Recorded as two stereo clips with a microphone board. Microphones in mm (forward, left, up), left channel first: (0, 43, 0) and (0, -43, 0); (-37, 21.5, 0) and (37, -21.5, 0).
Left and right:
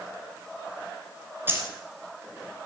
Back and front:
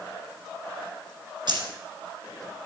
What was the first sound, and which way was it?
Keys jangling, 30° right.